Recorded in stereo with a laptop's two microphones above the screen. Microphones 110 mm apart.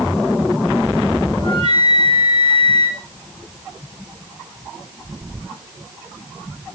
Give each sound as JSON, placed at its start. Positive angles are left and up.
{"t": 1.4, "sound": "a flute", "side_deg": 55, "distance_m": 7.0}